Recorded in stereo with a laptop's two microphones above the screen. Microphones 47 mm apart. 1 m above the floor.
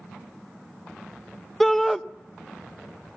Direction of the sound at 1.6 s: 5° left (ahead or behind).